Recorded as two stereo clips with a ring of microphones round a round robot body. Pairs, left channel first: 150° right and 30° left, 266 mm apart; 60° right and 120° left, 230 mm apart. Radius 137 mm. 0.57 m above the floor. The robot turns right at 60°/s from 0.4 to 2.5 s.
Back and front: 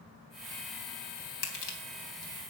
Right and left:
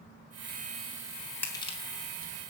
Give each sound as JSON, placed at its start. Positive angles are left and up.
{"t": 1.4, "sound": "crushing", "azimuth_deg": -140, "distance_m": 3.0}